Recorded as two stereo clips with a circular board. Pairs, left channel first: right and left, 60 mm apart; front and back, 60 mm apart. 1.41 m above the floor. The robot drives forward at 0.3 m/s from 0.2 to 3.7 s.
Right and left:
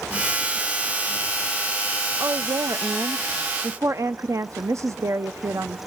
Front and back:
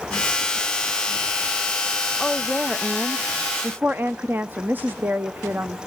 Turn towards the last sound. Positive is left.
turn(degrees=125)